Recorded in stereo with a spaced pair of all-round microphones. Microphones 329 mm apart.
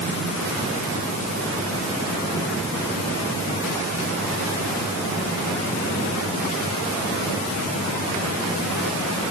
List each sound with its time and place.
Only background noise.